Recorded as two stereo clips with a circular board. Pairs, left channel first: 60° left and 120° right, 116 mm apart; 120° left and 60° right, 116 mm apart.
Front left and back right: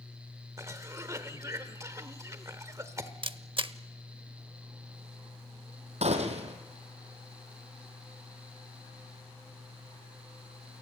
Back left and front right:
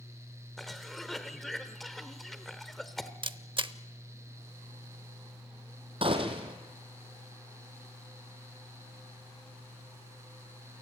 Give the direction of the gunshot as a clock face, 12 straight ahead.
3 o'clock.